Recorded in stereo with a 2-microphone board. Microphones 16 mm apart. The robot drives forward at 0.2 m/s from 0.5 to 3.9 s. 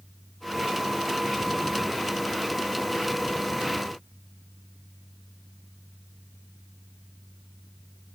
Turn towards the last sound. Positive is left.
No sound to turn to.